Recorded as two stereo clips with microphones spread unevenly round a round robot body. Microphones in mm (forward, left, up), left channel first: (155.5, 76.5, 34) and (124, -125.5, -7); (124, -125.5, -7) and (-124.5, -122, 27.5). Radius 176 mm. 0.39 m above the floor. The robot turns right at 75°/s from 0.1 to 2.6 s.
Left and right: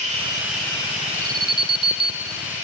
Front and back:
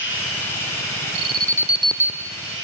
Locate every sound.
0.0 s running water: 45° right, 3 m; by 2.6 s 145° left, 3 m
1.1 s an alarm: 160° right, 0.6 m; by 2.3 s 70° right, 0.6 m